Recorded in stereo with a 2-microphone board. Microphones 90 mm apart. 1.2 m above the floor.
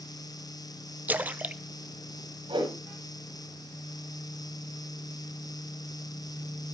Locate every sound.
1.1 s a splash: 20° right (ahead or behind), 0.5 m
2.5 s a whoosh: 85° right, 7 m